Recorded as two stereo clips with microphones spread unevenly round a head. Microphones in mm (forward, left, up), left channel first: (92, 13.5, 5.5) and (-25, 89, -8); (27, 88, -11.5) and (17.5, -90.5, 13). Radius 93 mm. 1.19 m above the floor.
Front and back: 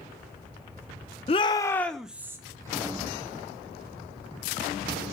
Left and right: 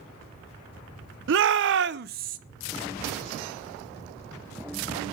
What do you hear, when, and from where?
1.3 s a shout: 90° right, 0.9 m; by 2.4 s 140° right, 1.0 m